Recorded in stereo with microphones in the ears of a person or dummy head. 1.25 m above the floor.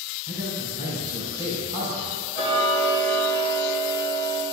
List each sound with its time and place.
0.3 s a man speaking: 20° right (ahead or behind), 3.5 m
2.4 s ticking: 40° left (ahead or behind), 2.5 m